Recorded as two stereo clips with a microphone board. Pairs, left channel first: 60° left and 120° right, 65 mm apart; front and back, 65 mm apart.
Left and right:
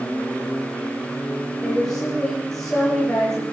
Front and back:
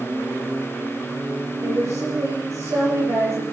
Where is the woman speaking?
145° left, 8 m.